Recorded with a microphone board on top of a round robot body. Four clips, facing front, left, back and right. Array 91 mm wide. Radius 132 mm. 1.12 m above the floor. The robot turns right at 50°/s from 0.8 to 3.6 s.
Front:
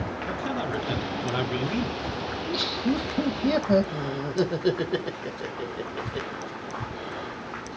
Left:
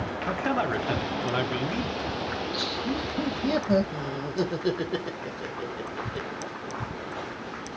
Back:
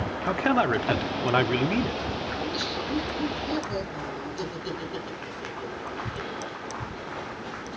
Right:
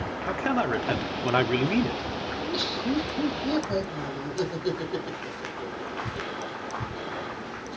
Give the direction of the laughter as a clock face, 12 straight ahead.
1 o'clock.